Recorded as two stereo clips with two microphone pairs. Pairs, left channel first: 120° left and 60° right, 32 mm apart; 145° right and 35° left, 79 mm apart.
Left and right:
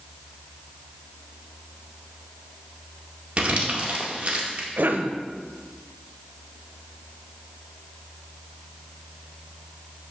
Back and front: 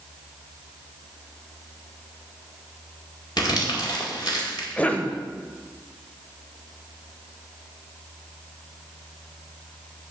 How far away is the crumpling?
About 2 m.